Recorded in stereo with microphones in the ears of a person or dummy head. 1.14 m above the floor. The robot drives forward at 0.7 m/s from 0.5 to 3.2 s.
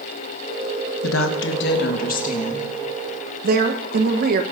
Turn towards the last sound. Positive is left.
turn(degrees=-40)  # may be behind; listen again after turning